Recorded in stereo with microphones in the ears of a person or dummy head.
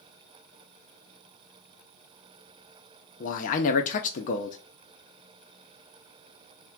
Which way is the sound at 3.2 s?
35° left (ahead or behind).